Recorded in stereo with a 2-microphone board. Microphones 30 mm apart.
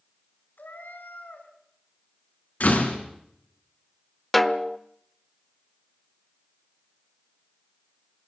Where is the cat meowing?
80° left, 3 m.